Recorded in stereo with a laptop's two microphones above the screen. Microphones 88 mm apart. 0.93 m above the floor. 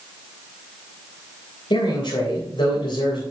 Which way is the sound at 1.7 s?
80° left.